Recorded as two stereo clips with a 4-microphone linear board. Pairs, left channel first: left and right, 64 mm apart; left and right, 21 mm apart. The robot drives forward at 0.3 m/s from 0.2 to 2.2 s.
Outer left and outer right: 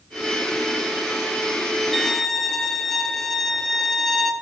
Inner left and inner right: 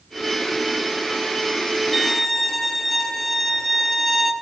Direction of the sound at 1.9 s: 5° left (ahead or behind).